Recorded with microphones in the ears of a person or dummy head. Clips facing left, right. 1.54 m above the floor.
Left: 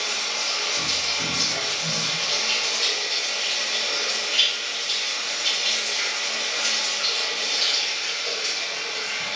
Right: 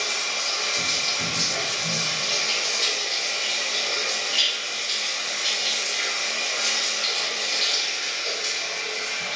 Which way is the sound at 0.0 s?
5° right (ahead or behind).